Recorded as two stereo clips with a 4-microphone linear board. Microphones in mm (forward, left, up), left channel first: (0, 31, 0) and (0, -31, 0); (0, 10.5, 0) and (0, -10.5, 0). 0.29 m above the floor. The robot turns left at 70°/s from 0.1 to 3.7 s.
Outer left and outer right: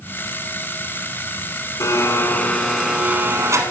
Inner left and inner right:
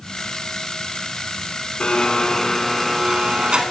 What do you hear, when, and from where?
1.8 s a blender: 65° left, 0.9 m; by 3.6 s 65° right, 0.9 m